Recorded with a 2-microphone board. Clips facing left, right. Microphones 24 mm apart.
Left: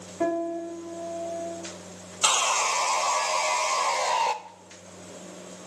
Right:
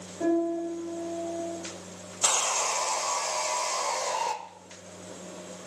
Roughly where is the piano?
Left.